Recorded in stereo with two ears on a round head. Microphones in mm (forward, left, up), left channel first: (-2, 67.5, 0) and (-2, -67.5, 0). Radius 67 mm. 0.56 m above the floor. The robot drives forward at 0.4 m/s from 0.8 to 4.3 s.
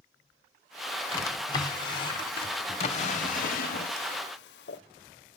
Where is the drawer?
25° left (ahead or behind), 1.5 m; by 4.8 s 80° left, 0.6 m.